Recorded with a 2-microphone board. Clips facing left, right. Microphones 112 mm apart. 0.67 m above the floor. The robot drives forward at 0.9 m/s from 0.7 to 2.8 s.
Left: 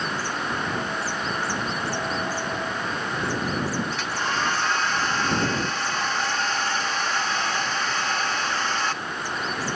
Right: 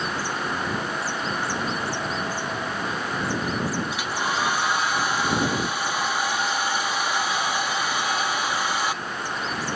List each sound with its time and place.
3.9 s a hair dryer: 10° right (ahead or behind), 1.1 m